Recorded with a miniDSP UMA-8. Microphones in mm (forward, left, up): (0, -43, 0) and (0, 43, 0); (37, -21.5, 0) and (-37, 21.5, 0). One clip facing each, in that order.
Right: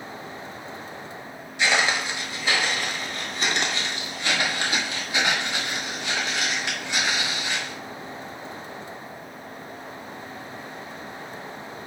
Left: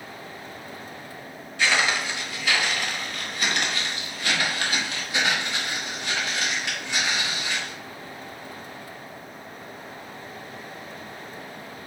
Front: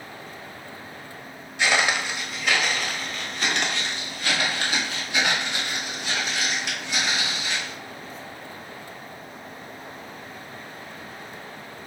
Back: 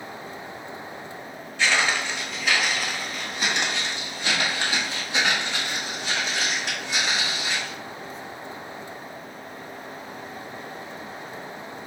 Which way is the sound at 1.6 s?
60° right.